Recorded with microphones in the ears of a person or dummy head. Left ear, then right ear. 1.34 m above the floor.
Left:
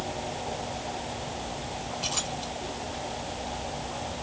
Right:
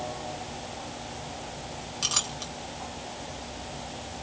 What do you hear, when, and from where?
2.0 s a clink: 50° right (ahead or behind), 1.0 m